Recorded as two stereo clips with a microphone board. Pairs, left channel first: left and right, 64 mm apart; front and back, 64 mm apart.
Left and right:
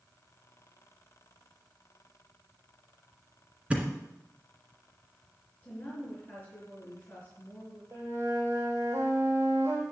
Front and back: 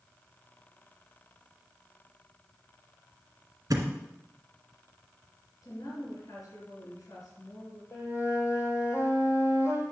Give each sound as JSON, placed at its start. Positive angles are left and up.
{"t": 3.7, "sound": "a thud", "azimuth_deg": -160, "distance_m": 2.0}
{"t": 5.6, "sound": "a woman speaking", "azimuth_deg": 20, "distance_m": 4.5}
{"t": 7.9, "sound": "a flute", "azimuth_deg": -40, "distance_m": 2.5}